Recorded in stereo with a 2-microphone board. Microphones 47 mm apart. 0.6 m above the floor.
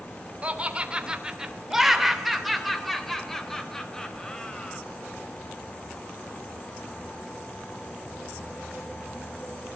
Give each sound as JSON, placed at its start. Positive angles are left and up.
{"t": 0.4, "sound": "laughter", "side_deg": -25, "distance_m": 2.5}